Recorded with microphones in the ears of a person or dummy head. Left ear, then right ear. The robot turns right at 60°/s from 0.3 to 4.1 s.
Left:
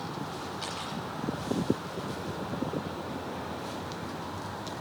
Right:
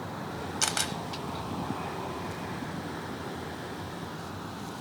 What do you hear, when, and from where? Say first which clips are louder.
0.6 s a camera shutter: right 10 dB; 40° right (ahead or behind), 0.7 m; by 0.9 s 50° right (ahead or behind), 0.7 m